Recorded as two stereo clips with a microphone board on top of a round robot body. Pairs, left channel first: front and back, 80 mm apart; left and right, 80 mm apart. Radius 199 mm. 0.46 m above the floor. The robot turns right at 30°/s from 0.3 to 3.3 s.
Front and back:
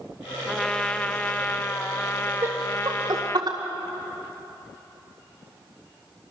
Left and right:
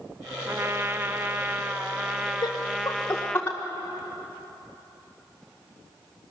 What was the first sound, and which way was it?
A trumpet, 80° right.